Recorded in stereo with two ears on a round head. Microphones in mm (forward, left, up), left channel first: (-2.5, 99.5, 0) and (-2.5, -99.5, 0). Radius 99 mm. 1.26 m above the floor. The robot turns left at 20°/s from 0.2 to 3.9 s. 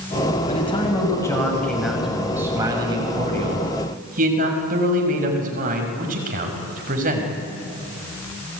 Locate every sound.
0.5 s a man speaking: 30° left, 6 m; by 7.3 s 40° right, 6 m